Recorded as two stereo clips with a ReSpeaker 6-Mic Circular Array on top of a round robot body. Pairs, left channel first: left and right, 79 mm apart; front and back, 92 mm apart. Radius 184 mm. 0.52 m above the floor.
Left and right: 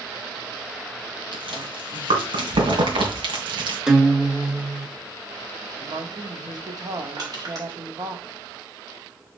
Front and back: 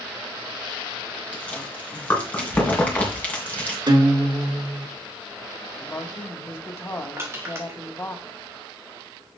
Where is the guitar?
165° right, 1.5 m.